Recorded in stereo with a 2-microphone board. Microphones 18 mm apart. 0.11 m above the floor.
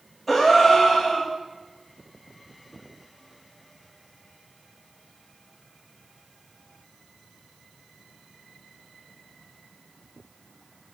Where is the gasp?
10° right (ahead or behind), 4 m.